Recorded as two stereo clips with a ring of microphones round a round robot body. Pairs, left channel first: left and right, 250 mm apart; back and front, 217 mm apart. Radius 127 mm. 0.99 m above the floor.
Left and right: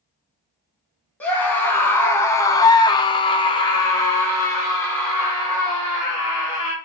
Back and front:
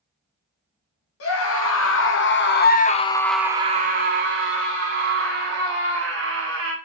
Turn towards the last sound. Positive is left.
turn(degrees=5)